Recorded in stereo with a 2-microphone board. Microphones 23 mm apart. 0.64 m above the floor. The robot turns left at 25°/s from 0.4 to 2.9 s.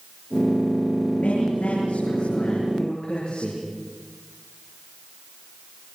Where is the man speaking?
100° left, 10 m; by 3.6 s 55° left, 10 m.